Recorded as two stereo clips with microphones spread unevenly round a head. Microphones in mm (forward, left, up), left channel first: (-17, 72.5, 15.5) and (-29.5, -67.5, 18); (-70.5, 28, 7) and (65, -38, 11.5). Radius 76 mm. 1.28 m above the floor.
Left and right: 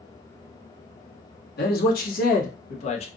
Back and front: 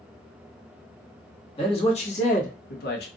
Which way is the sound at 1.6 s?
95° left.